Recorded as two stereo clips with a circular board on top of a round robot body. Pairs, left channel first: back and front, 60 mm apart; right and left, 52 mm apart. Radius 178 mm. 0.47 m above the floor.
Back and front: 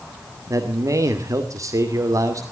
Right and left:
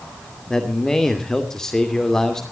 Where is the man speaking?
10° right, 2.5 m.